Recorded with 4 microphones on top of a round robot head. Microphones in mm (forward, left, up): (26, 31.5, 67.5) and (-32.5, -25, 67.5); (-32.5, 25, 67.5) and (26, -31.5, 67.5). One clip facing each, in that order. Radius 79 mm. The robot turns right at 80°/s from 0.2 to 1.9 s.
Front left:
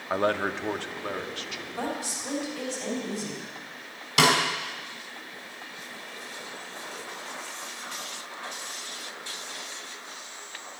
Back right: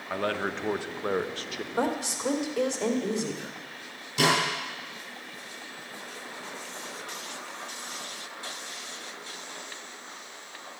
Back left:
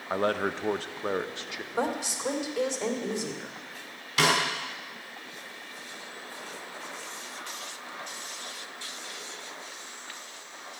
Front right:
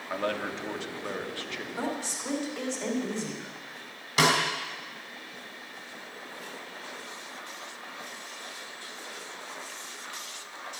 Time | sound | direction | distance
0.1 | a man speaking | 100° left | 0.9 m
1.7 | a woman speaking | 165° right | 2.5 m
4.2 | a snare drum | 15° left | 3 m